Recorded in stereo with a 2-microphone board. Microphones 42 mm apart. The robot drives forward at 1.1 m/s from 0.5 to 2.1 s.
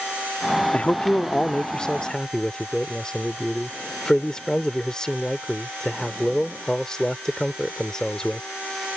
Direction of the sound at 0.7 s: 30° left (ahead or behind).